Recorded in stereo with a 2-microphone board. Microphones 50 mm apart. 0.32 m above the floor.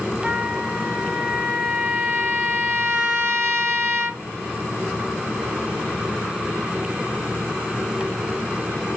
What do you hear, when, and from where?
0.2 s a trumpet: 30° right (ahead or behind), 2 m